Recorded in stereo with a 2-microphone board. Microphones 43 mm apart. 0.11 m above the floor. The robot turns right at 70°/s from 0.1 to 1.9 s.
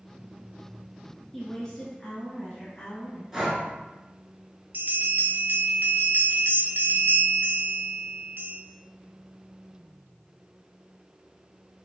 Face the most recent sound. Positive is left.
turn(degrees=-55)  # may be behind; listen again after turning